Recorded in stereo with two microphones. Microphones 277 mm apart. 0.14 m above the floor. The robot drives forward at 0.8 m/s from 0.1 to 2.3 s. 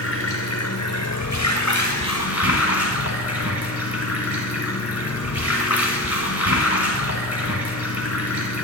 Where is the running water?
55° left (ahead or behind), 1.6 m; by 8.6 s 60° left (ahead or behind), 1.5 m.